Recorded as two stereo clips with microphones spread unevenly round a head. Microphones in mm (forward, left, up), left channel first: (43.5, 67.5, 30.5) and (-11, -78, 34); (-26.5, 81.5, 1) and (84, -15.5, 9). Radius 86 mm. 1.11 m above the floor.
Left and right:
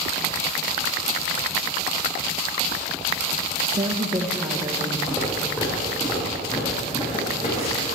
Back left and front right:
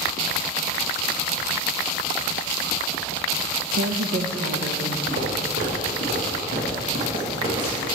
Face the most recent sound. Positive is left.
turn(degrees=20)